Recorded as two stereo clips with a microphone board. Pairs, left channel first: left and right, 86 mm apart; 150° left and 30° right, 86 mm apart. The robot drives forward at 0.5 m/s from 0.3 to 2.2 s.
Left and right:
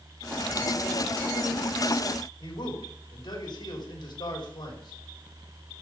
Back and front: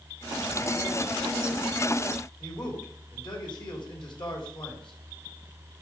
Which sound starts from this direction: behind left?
A man speaking, at 2.4 s.